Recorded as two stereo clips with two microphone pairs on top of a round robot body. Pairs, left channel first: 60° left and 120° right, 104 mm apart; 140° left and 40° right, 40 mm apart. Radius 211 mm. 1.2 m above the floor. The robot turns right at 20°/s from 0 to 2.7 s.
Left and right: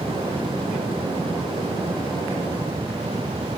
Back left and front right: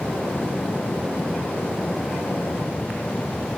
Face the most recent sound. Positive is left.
No sound to turn to.